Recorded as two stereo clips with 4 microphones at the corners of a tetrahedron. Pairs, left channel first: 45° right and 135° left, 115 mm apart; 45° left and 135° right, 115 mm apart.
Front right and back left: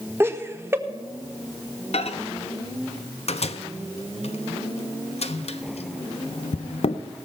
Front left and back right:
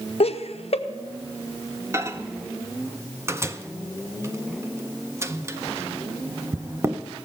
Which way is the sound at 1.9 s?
70° right.